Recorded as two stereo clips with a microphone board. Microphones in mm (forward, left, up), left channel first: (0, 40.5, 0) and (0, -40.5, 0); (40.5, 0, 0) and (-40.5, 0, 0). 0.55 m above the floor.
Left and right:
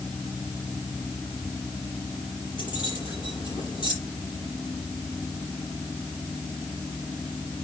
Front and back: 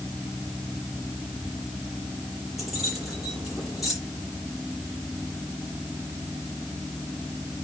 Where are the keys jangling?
95° left, 8.5 m.